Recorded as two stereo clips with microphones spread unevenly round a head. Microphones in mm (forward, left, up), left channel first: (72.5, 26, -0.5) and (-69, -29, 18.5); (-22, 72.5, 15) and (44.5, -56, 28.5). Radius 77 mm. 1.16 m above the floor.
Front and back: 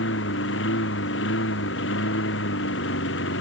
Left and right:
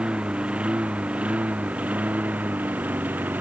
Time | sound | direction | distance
0.0 | a lawn mower | 20° left | ?